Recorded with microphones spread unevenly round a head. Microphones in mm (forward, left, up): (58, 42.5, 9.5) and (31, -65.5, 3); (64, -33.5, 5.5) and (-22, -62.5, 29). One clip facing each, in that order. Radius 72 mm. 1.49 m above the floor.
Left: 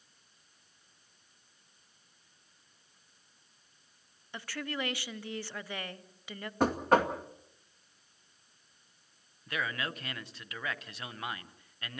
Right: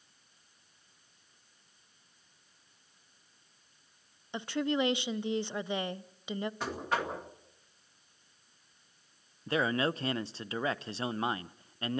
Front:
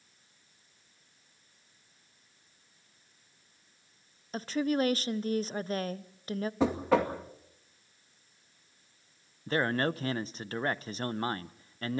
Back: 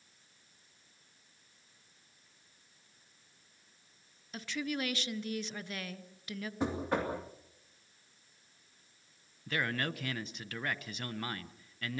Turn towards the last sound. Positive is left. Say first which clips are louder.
# right 7 dB, front 6 dB
turn(degrees=-45)